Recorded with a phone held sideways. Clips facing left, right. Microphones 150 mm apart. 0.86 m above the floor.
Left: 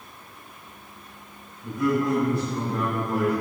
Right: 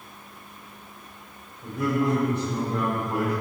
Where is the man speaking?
35° right (ahead or behind), 3.5 m; by 3.3 s 10° right (ahead or behind), 4 m.